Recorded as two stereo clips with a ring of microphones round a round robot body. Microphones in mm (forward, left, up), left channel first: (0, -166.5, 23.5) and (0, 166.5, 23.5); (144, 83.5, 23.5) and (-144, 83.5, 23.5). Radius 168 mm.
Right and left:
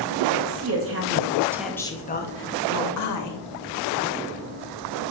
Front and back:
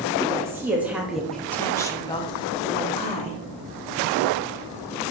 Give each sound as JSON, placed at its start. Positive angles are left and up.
{"t": 0.3, "sound": "a woman speaking", "azimuth_deg": 100, "distance_m": 1.2}